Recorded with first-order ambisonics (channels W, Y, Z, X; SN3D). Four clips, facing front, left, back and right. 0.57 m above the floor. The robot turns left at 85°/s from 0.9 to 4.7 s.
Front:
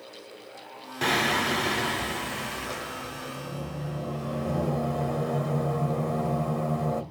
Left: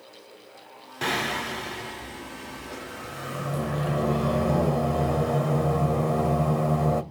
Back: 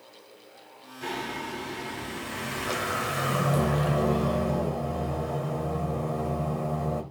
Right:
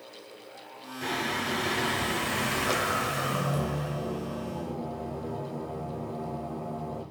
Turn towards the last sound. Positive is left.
turn(degrees=80)